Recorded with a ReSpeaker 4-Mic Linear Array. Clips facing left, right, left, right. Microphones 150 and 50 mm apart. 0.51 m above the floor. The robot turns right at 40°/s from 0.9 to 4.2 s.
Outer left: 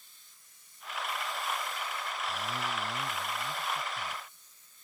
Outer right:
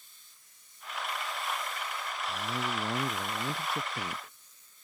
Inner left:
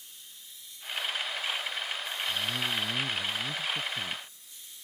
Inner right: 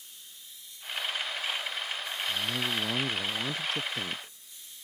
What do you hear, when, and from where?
2.3 s a man speaking: 155° right; by 4.3 s 80° right